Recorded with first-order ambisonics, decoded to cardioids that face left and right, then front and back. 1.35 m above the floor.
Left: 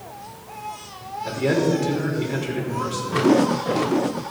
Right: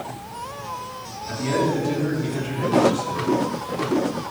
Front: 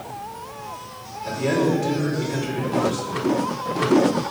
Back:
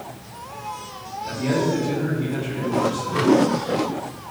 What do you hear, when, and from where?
1.2 s a man speaking: 75° left, 5 m